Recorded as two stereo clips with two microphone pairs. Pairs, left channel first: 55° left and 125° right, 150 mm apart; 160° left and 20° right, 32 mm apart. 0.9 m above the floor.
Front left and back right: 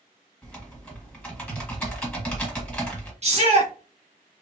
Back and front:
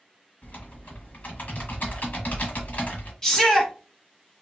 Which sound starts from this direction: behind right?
A shout, at 3.2 s.